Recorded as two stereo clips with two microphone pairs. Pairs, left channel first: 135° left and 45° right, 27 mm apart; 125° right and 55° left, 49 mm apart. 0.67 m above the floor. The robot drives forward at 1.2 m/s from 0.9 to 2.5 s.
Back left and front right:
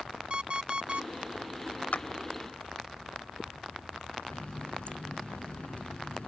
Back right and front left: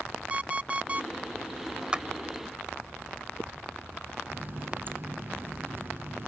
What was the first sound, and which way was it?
An alarm clock, 10° right.